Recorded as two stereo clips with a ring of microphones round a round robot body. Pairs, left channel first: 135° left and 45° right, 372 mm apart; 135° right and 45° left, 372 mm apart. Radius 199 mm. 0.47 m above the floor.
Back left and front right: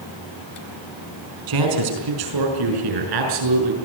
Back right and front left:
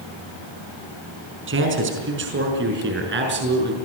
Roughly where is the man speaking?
Ahead.